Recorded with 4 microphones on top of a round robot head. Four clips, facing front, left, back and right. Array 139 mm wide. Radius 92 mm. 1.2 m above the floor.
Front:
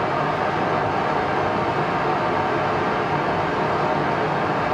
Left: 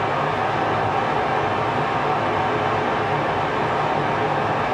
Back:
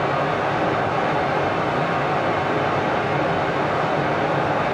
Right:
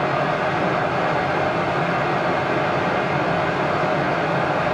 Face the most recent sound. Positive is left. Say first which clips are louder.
# right 1 dB, back 1 dB
turn(degrees=-95)